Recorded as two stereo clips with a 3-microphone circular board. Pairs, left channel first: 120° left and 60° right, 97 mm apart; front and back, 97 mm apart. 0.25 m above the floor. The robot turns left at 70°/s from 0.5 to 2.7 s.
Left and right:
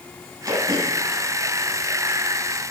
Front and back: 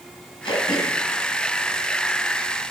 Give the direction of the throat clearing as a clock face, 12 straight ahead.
1 o'clock.